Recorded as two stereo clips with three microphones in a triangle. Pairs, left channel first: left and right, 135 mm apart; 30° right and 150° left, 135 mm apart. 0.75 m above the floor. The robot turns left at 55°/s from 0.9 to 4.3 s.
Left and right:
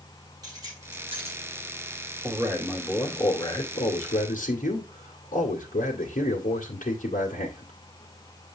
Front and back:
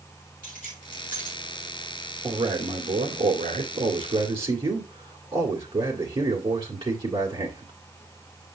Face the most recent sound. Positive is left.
turn(degrees=105)